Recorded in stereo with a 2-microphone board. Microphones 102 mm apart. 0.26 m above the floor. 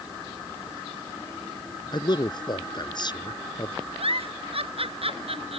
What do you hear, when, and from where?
1.9 s a man speaking: 45° left (ahead or behind)
4.0 s a giggle: 70° right (ahead or behind)